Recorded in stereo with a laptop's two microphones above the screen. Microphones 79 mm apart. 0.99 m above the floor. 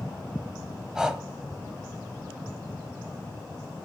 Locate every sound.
0.9 s breathing: 10° right (ahead or behind), 1.3 m